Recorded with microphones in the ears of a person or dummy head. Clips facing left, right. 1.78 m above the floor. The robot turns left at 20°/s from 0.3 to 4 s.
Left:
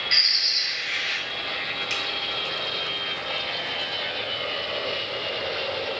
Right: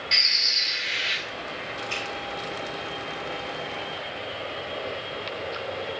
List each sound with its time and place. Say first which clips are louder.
0.1 s a bird: right 1 dB; 5° left (ahead or behind), 1.5 m; by 1.2 s 15° right (ahead or behind), 1.5 m
1.9 s a finger snap: even; 75° left (ahead or behind), 4 m